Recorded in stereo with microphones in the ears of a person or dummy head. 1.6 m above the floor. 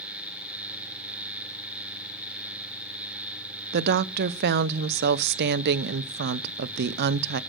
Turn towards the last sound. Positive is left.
turn(degrees=-60)  # may be behind; listen again after turning